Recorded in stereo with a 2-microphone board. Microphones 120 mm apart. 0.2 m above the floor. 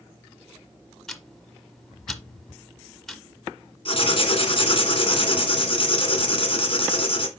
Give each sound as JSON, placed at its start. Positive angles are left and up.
{"t": 1.1, "sound": "ticking", "side_deg": 0, "distance_m": 1.1}
{"t": 3.9, "sound": "writing", "side_deg": 45, "distance_m": 2.0}